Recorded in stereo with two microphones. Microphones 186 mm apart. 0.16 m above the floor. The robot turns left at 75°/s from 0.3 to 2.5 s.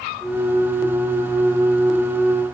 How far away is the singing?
No singing in this recording.